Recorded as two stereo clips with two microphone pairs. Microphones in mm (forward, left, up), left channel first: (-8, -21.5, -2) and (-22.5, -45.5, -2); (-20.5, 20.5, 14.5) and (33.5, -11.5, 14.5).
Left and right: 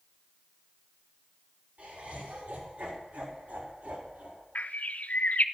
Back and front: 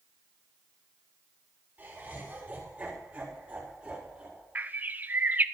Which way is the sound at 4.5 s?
30° left.